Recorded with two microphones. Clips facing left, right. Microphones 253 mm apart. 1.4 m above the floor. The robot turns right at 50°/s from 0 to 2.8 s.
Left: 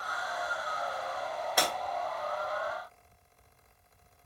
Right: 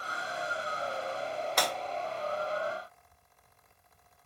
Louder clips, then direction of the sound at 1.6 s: Left 1 dB; 5° left (ahead or behind).